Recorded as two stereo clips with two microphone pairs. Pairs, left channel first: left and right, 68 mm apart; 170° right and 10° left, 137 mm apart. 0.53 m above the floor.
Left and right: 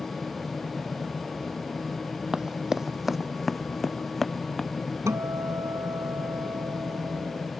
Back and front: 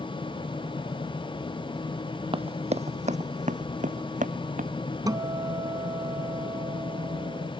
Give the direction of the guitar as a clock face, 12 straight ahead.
2 o'clock.